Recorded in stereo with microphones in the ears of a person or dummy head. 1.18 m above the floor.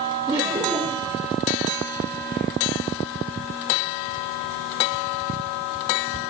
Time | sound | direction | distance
0.3 | laughter | 15° right (ahead or behind) | 2.5 m